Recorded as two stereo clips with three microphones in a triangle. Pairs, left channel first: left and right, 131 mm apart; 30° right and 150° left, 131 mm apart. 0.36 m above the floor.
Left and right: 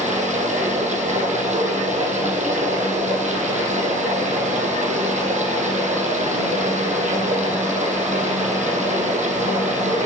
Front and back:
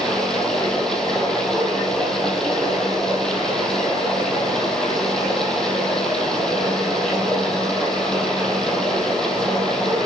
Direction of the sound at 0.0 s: 115° right.